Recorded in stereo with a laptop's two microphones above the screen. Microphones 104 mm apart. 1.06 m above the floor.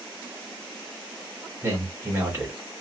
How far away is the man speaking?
About 1.9 m.